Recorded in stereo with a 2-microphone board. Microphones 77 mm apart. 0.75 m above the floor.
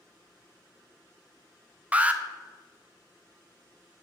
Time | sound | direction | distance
1.9 | an alarm | 20° right (ahead or behind) | 0.7 m